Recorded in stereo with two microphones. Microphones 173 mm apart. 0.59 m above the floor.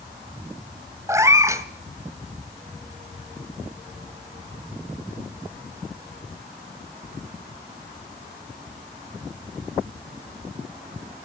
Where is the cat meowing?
15° right (ahead or behind), 1.0 m.